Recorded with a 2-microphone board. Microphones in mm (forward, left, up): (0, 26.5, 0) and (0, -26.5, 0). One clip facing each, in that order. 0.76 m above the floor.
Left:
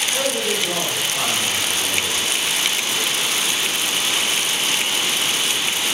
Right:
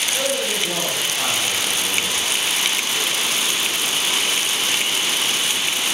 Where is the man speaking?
60° left (ahead or behind), 2 m.